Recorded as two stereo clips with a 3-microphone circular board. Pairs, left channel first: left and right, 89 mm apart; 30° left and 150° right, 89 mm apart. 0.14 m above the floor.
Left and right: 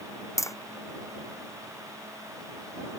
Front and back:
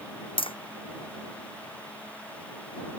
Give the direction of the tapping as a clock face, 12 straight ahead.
11 o'clock.